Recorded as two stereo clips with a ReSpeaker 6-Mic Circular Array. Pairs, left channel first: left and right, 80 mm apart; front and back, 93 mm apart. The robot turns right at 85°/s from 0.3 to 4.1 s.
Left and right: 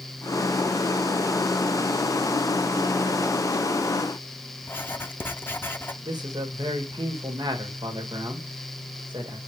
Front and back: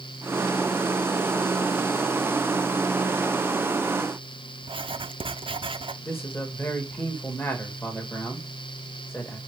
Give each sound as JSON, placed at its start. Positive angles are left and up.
{"t": 4.6, "sound": "writing", "azimuth_deg": 155, "distance_m": 0.6}
{"t": 6.0, "sound": "a man speaking", "azimuth_deg": -65, "distance_m": 2.0}